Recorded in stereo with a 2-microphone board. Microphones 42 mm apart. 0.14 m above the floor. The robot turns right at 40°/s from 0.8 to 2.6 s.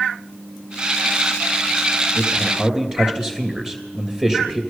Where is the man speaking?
30° right (ahead or behind), 2.5 m; by 4.6 s 15° right (ahead or behind), 2.5 m.